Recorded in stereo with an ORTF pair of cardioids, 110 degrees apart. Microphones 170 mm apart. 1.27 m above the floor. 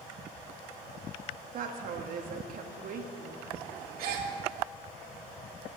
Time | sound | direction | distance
1.5 | a woman speaking | 60° right | 1.6 m
4.0 | a gasp | 70° right | 2.5 m